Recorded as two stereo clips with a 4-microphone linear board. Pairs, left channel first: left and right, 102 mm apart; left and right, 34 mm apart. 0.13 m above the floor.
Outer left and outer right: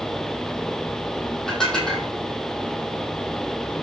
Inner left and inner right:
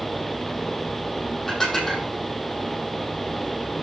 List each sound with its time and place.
1.5 s dishes clattering: 5° left (ahead or behind), 3 m